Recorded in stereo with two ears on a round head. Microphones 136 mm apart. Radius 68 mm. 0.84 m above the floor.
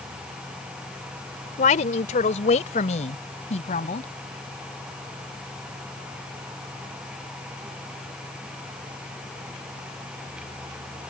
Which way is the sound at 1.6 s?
50° left (ahead or behind).